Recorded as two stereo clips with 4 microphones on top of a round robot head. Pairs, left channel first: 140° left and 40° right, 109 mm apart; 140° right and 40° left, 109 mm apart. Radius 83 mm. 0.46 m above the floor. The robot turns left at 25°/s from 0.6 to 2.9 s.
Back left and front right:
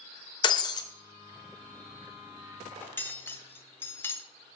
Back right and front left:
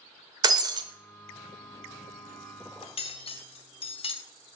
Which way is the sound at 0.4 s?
95° left.